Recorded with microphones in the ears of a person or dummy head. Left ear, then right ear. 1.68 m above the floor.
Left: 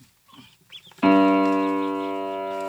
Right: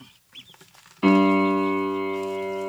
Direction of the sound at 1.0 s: 20° left (ahead or behind).